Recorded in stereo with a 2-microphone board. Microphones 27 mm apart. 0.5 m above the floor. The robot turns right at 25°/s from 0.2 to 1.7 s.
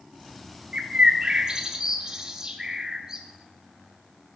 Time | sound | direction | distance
0.7 | a bird | 45° right (ahead or behind) | 0.7 m